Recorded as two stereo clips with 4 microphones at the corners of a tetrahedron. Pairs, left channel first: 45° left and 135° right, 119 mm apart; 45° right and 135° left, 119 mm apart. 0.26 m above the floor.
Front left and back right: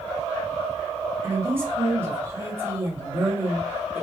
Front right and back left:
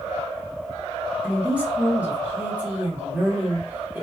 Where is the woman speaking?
165° right, 1.3 m.